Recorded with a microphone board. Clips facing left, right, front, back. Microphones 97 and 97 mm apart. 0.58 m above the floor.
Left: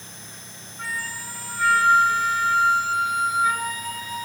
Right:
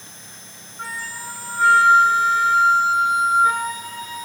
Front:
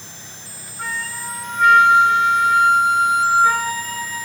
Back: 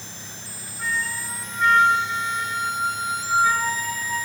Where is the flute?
30° right, 5 m.